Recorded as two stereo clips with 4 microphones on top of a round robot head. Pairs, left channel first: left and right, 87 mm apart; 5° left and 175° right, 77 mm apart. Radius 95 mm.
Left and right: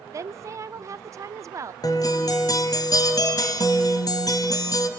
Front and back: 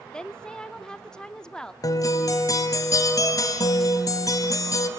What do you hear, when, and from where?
0.1 s a woman speaking: 70° right, 0.8 m
1.8 s a guitar: 45° left, 1.4 m